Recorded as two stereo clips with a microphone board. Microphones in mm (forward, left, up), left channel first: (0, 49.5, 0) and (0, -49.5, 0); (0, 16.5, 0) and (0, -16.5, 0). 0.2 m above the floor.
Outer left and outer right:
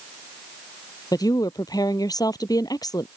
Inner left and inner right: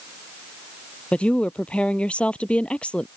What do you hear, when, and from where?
1.1 s a woman speaking: 45° left (ahead or behind)